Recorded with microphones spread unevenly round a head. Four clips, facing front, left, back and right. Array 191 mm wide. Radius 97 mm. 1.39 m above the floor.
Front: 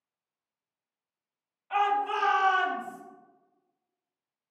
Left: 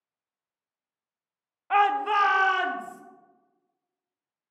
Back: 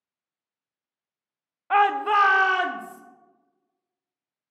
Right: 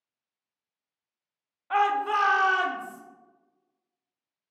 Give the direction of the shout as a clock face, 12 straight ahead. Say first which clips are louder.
Left 2 dB, back 7 dB; 7 o'clock.